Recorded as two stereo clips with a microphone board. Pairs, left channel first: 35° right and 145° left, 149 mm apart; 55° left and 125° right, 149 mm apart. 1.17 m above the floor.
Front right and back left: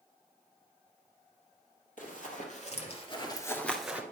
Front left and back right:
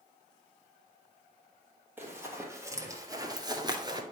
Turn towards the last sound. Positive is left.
turn(degrees=-145)